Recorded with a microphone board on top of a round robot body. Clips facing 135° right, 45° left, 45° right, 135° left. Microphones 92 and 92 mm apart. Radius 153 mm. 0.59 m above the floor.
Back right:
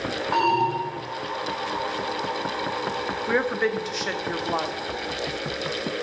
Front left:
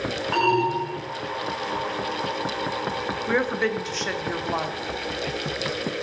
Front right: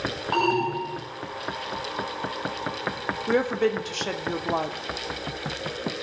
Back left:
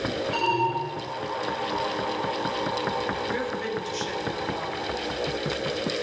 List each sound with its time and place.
0.3 s an alarm: 55° right, 8.5 m
3.3 s a woman speaking: 50° right, 2.0 m